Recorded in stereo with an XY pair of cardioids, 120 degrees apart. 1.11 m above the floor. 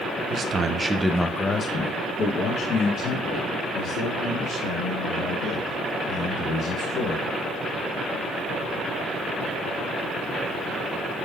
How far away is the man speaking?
About 0.6 m.